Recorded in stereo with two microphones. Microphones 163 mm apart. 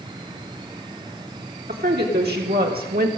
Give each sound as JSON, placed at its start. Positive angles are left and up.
{"t": 1.7, "sound": "a woman speaking", "side_deg": -85, "distance_m": 2.5}